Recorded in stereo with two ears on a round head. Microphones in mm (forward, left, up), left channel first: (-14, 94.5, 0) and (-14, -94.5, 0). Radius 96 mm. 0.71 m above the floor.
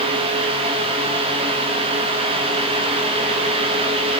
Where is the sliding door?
No sliding door in this recording.